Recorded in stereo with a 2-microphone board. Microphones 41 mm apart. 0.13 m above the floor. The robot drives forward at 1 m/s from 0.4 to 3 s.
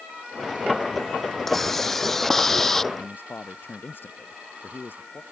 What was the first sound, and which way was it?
A hiss, 5° left (ahead or behind).